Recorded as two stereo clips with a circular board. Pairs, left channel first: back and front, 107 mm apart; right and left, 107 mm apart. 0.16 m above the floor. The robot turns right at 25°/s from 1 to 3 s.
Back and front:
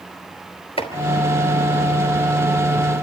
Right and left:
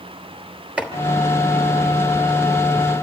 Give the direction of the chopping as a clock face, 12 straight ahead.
6 o'clock.